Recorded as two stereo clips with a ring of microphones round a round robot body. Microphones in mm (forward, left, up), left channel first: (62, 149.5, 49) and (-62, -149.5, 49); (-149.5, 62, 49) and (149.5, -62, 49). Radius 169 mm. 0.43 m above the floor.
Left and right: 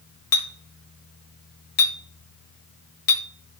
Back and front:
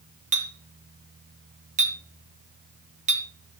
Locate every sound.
0.3 s a clink: 45° left, 1.2 m